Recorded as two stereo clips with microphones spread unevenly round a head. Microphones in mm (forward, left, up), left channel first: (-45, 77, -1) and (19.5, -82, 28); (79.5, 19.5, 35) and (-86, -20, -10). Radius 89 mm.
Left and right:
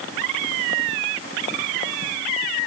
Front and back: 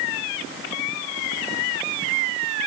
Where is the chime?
No chime in this recording.